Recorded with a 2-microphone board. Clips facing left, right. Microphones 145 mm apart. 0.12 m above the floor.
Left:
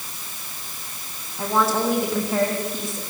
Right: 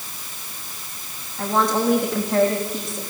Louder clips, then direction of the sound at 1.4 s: Right 1 dB; 5° left (ahead or behind).